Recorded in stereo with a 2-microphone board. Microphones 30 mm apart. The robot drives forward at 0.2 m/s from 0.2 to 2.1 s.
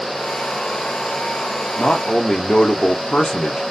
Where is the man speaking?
35° left (ahead or behind), 1.1 m.